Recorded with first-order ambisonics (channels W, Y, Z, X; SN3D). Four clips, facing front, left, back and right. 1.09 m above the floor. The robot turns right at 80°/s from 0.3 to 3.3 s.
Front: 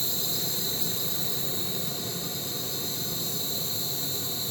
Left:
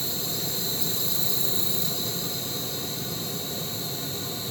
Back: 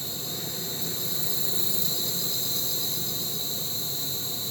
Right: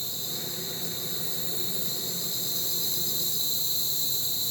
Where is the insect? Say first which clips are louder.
Left 4 dB, front 3 dB; 15° left, 2.5 m; by 4.5 s 105° right, 2.5 m.